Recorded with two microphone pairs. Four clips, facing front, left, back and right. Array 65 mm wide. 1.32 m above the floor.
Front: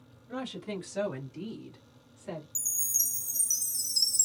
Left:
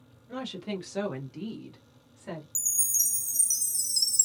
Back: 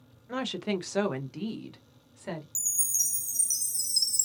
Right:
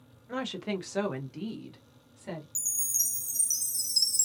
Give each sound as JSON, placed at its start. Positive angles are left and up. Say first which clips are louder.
{"t": 0.3, "sound": "a woman speaking", "louder": "right 2 dB, back 5 dB", "azimuth_deg": -130, "distance_m": 0.6}
{"t": 2.5, "sound": "a chime", "louder": "left 2 dB, back 1 dB", "azimuth_deg": -85, "distance_m": 0.8}